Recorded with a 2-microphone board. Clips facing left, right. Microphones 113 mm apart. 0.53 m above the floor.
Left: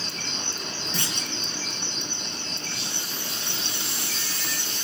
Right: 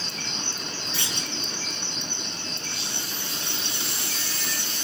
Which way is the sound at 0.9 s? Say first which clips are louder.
Left 2 dB; 40° left (ahead or behind).